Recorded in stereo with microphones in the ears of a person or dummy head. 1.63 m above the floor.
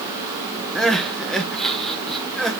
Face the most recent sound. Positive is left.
turn(degrees=0)  # may be behind; listen again after turning